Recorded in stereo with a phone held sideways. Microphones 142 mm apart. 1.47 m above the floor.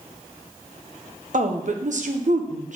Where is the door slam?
I don't hear a door slam.